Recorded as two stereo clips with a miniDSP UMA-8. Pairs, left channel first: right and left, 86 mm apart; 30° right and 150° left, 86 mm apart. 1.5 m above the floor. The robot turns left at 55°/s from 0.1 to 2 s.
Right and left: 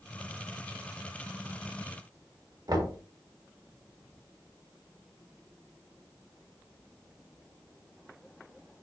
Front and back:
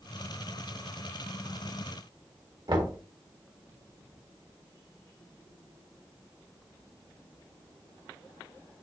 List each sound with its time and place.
2.7 s knocking: 130° left, 2.0 m